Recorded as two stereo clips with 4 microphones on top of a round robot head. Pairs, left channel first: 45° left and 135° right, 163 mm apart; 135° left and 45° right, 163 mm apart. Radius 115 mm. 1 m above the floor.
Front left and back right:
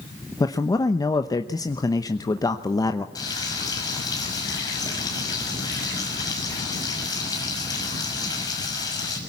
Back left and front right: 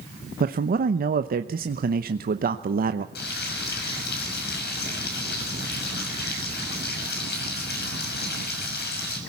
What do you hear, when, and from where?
0.4 s a man speaking: 25° right, 1.0 m
3.1 s frying: 115° left, 6 m